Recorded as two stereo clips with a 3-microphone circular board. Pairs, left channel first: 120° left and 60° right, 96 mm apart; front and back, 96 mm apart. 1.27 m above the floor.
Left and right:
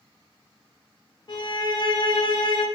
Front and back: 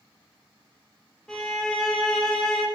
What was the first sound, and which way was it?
A violin, 85° left.